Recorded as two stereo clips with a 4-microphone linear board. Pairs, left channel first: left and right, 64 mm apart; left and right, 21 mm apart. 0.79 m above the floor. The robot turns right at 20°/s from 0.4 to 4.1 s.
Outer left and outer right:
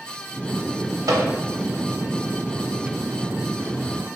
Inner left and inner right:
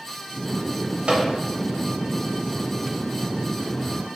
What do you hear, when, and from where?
1.1 s a microwave: 60° right (ahead or behind), 0.6 m; by 1.3 s 65° right (ahead or behind), 0.6 m